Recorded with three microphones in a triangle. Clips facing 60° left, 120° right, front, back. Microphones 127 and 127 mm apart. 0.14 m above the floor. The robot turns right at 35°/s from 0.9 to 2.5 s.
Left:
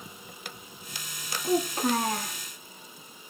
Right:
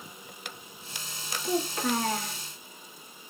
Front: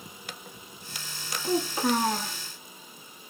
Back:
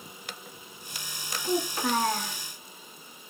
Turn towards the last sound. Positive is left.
turn(degrees=90)